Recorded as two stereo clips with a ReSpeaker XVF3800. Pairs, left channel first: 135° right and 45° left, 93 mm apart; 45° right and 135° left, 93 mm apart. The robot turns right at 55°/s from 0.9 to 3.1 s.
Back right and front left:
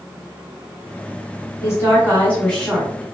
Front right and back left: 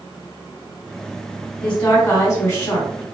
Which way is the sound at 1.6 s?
115° right.